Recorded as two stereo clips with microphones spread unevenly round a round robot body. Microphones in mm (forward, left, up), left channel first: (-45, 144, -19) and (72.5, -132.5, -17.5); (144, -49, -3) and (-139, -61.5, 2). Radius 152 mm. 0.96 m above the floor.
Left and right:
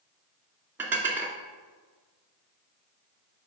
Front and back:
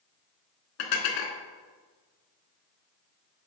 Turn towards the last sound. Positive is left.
turn(degrees=15)